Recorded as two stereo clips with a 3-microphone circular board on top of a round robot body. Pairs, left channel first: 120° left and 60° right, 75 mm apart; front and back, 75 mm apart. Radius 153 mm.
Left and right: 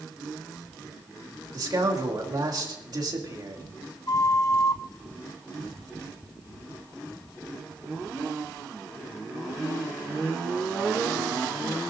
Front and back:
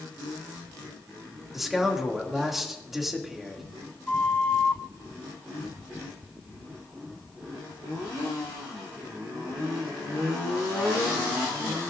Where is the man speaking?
95° right, 2.5 m.